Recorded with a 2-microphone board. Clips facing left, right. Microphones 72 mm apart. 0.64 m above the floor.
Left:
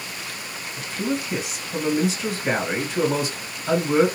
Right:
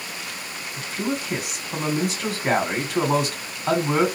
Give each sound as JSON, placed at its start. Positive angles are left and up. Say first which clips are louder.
{"t": 0.8, "sound": "a man speaking", "louder": "left 1 dB", "side_deg": -60, "distance_m": 2.0}